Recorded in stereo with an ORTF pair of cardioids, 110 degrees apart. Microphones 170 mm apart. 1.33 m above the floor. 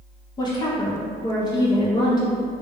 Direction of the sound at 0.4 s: 25° left.